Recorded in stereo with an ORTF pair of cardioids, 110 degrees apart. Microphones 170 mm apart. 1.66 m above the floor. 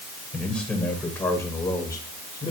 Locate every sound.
0.3 s a man speaking: 5° left, 9 m; by 2.5 s 25° left, 8.5 m